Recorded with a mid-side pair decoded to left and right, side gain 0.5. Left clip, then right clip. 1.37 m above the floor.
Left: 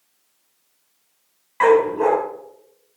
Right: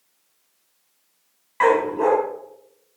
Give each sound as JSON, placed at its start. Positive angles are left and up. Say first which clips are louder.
{"t": 1.6, "sound": "a dog barking", "louder": "left 3 dB", "azimuth_deg": 0, "distance_m": 4.0}